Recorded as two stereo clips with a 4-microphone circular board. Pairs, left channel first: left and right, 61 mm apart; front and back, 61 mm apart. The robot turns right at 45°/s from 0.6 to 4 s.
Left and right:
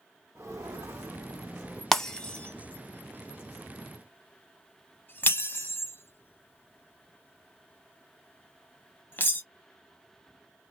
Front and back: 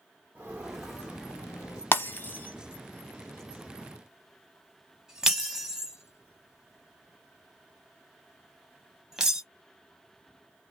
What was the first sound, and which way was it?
Footsteps, 120° right.